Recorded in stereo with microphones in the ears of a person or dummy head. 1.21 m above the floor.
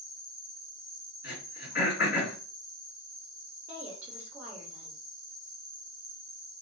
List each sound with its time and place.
0.0 s an insect: 15° right (ahead or behind), 1.1 m
1.2 s throat clearing: 50° left (ahead or behind), 2 m
3.7 s a woman speaking: 20° right (ahead or behind), 1.0 m